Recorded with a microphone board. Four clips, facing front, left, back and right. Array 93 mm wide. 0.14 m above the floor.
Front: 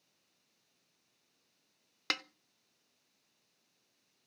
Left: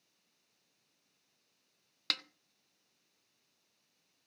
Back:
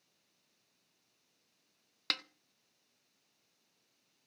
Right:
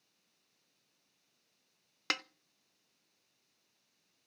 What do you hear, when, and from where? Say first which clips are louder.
2.1 s a snare drum: right 5 dB, front 3 dB; 70° right, 0.7 m